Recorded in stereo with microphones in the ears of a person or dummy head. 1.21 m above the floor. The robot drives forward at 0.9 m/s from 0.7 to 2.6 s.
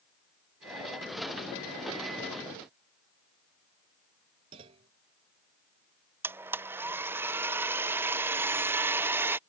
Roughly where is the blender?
Centre.